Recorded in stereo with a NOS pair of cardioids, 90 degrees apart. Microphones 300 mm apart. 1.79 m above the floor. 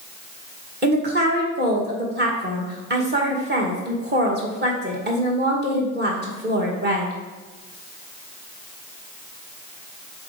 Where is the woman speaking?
35° right, 2.5 m.